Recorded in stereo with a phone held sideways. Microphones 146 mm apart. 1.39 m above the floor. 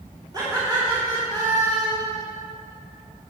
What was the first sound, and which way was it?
Laughter, 30° right (ahead or behind).